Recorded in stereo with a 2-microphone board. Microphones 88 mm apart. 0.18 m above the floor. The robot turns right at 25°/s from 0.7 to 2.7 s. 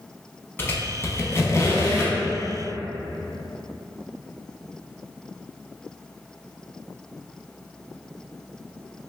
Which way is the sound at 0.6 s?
25° left (ahead or behind).